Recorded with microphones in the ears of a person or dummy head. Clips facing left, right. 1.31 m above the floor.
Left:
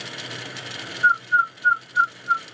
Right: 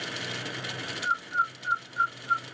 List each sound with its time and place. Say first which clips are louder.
1.0 s a bird: left 8 dB; 10° left (ahead or behind), 0.7 m